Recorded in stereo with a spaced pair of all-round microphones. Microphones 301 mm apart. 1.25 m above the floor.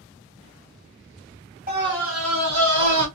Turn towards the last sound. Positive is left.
turn(degrees=-85)